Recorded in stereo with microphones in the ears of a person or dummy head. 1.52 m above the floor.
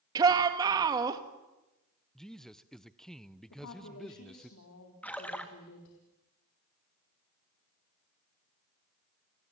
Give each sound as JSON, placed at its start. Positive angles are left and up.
{"t": 0.1, "sound": "a shout", "side_deg": -20, "distance_m": 2.0}
{"t": 2.1, "sound": "a man speaking", "side_deg": 0, "distance_m": 0.7}
{"t": 3.5, "sound": "a woman speaking", "side_deg": 70, "distance_m": 3.5}
{"t": 5.0, "sound": "a splash", "side_deg": 5, "distance_m": 2.0}